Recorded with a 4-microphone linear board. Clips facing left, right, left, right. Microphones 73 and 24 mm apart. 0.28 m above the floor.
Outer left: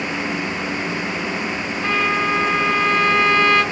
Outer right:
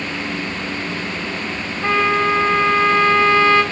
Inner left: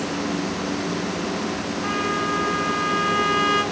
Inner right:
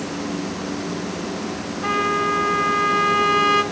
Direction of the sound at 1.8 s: 30° right (ahead or behind).